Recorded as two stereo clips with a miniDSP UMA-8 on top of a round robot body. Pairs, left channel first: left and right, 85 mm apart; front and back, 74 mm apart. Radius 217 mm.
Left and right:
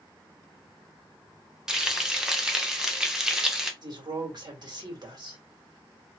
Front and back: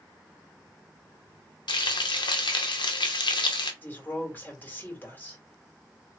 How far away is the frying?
About 0.9 m.